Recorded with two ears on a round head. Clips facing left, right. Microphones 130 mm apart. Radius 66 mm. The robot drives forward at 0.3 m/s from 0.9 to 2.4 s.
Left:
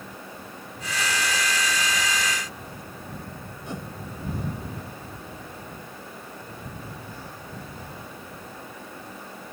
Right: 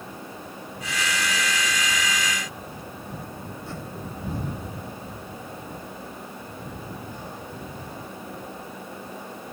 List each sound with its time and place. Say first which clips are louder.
3.7 s a whoosh: left 4 dB; 15° left (ahead or behind)